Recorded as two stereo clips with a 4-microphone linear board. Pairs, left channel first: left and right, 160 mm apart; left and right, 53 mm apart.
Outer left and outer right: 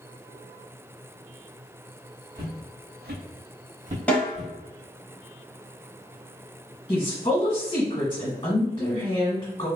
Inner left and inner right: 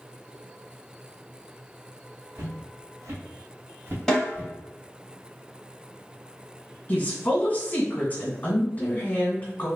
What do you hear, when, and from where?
2.4 s footsteps: 65° right (ahead or behind), 1.0 m; by 4.5 s 20° right (ahead or behind), 0.7 m
4.1 s a snare drum: 10° left (ahead or behind), 1.3 m
6.9 s a woman speaking: 30° left (ahead or behind), 1.8 m